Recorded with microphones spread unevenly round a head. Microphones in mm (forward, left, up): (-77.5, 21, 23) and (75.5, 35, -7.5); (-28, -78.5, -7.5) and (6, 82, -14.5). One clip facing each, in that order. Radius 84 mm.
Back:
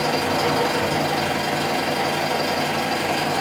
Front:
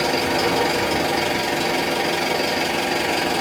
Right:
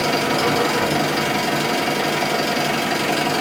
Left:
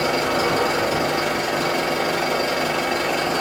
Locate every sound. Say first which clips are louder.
0.0 s an engine running: front 1 dB, right 1 dB; 95° right, 1.5 m